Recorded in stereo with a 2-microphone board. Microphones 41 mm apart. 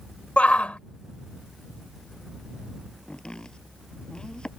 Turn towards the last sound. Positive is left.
turn(degrees=20)  # may be behind; listen again after turning